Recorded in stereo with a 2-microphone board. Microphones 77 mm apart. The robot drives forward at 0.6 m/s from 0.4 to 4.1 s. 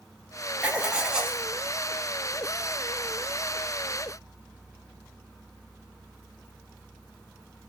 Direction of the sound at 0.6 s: 15° right (ahead or behind).